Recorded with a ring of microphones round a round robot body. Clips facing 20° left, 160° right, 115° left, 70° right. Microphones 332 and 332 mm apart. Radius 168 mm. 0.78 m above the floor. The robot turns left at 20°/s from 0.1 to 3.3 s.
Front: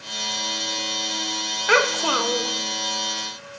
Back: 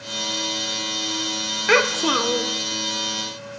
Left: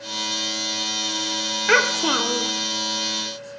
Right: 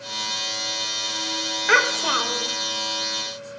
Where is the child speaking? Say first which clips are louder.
Back 2 dB, left 4 dB; 150° left, 0.7 m; by 2.5 s 135° left, 0.7 m.